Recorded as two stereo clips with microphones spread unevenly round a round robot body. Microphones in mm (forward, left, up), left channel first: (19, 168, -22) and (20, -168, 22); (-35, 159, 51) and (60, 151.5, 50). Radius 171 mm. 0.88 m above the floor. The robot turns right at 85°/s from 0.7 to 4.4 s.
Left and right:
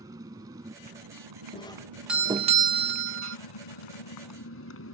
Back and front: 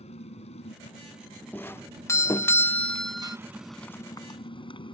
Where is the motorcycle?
170° right; by 4.9 s 145° left.